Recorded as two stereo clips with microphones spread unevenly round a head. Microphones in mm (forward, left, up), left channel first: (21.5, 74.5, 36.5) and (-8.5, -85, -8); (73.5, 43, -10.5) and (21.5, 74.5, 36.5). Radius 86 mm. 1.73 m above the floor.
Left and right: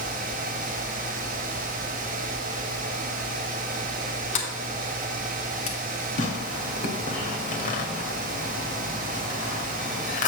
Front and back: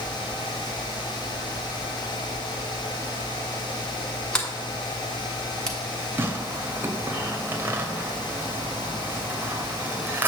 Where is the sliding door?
80° left, 1.4 m.